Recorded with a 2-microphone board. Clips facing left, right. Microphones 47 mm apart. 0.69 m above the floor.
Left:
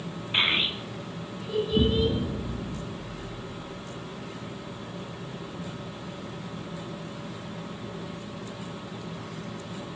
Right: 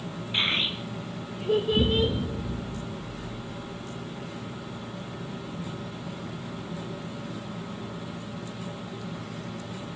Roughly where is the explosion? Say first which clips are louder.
Even; centre.